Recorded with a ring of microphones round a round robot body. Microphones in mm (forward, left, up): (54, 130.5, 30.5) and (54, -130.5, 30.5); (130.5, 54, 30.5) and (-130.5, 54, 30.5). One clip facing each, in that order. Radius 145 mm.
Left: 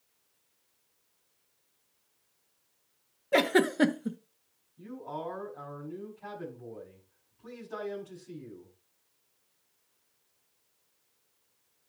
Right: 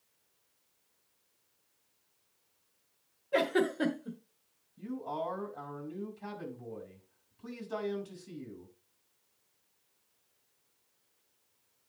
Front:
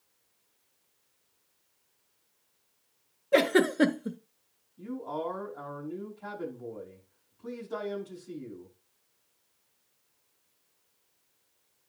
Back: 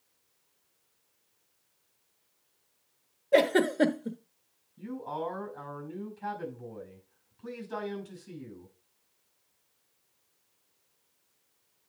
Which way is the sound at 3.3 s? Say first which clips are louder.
Left 4 dB, front 1 dB; 75° left.